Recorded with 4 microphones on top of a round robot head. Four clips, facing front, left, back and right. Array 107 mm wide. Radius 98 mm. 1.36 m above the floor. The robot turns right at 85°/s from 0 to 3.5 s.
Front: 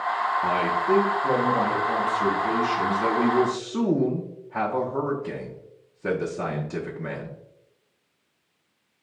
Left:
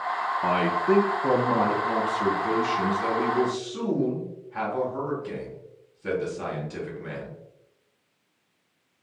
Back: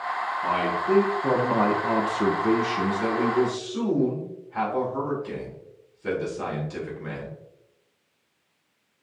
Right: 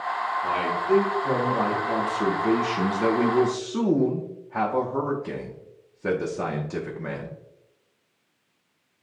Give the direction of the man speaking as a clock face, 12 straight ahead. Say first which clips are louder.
Left 5 dB, front 1 dB; 10 o'clock.